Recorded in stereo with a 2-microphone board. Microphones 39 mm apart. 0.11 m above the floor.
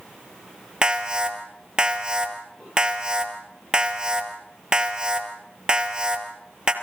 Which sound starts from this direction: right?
An alarm, at 0.8 s.